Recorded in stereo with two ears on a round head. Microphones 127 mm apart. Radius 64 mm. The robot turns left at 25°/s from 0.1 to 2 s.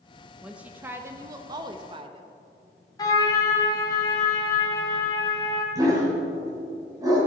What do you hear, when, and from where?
0.4 s a woman speaking: 10° right, 0.6 m; by 2.2 s 50° right, 0.6 m
3.0 s a trumpet: 30° left (ahead or behind), 1.9 m
5.8 s a dog barking: 25° right (ahead or behind), 3 m